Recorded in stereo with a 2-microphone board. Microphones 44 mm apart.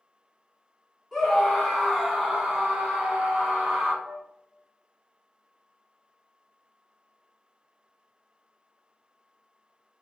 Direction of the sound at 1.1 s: 10° left (ahead or behind).